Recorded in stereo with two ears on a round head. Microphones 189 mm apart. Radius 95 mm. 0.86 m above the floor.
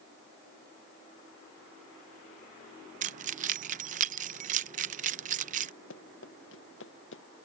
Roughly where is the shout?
I don't hear a shout.